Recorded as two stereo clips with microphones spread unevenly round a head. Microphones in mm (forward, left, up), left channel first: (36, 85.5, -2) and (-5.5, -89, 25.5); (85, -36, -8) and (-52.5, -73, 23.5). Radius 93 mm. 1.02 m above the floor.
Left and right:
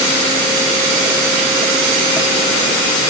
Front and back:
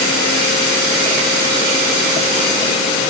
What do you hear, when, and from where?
Only background noise.